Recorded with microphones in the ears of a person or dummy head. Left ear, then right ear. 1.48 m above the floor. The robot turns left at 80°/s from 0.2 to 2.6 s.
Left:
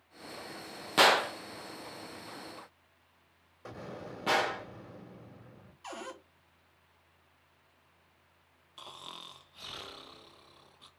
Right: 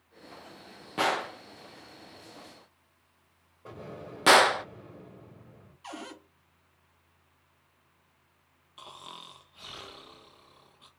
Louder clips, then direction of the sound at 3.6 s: Right 1 dB; 60° left (ahead or behind).